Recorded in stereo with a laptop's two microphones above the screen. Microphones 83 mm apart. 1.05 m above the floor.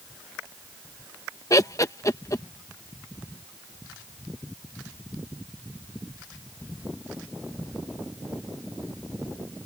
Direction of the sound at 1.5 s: 40° left (ahead or behind).